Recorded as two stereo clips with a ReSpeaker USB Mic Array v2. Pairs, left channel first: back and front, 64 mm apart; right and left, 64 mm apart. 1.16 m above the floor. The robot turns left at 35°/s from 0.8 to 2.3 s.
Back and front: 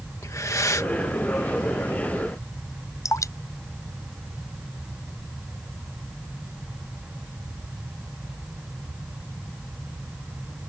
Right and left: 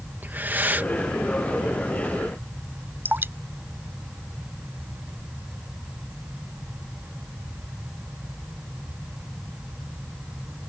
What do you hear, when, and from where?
0.2 s breathing: 145° left
3.0 s dripping: 145° left